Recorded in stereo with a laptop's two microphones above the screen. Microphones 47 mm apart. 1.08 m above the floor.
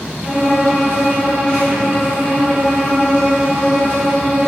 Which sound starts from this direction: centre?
A violin, at 0.2 s.